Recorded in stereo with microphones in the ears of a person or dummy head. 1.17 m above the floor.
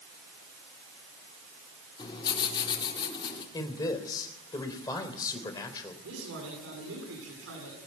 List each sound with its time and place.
2.0 s writing: 25° left (ahead or behind), 4 m
3.5 s a man speaking: 20° left (ahead or behind), 3.5 m
6.0 s a man speaking: 75° right (ahead or behind), 10 m